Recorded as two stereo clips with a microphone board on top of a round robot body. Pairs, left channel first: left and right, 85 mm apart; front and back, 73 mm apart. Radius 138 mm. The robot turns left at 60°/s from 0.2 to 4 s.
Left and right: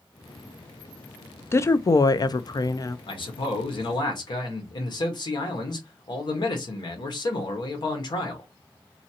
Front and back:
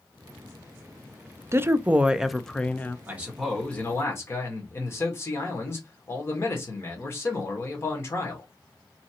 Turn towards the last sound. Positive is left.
turn(degrees=55)